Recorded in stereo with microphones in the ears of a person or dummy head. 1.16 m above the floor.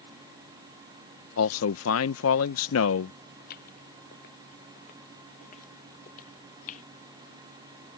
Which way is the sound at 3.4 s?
50° left (ahead or behind).